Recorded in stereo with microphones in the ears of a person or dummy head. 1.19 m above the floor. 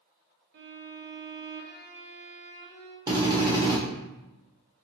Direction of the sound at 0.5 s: 50° right (ahead or behind).